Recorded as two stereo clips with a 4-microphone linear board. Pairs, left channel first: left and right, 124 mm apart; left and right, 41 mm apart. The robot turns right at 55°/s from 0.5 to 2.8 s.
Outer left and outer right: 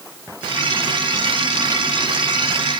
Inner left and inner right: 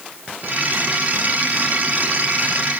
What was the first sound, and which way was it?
Only background noise.